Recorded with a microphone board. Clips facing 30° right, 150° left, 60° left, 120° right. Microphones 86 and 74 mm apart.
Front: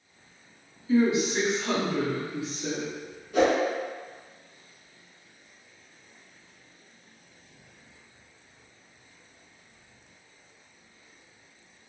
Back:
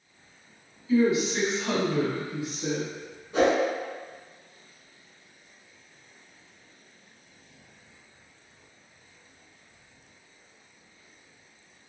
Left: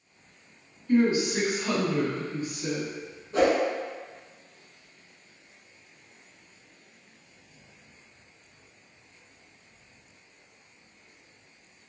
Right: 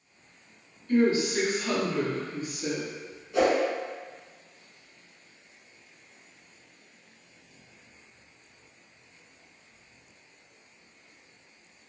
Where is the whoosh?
100° left, 1.6 m.